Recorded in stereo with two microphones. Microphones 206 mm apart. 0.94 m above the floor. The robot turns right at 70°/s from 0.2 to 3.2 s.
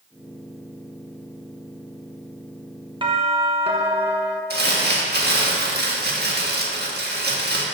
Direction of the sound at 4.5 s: 55° right (ahead or behind).